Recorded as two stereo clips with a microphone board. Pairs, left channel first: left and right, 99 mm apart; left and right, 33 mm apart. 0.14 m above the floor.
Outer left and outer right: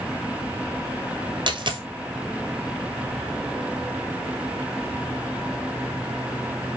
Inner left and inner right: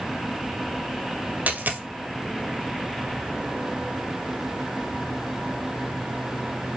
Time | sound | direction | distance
1.5 | a dropped coin | 55° right (ahead or behind) | 1.5 m